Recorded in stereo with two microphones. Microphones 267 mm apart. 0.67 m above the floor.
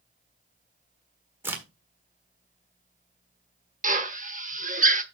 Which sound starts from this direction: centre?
A crack, at 1.4 s.